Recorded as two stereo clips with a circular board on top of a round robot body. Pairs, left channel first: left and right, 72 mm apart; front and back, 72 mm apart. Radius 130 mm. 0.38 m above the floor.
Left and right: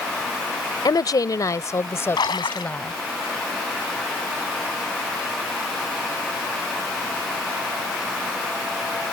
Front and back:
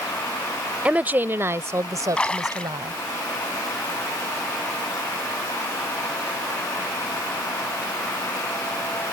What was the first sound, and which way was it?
A woman speaking, 110° left.